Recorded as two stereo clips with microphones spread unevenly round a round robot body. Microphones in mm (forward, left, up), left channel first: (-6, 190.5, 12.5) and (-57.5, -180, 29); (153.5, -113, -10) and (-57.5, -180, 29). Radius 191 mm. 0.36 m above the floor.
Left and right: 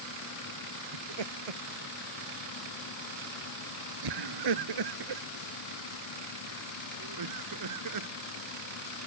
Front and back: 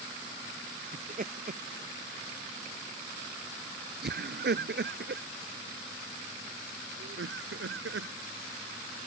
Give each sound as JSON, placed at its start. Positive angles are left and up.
{"t": 0.9, "sound": "laughter", "azimuth_deg": -110}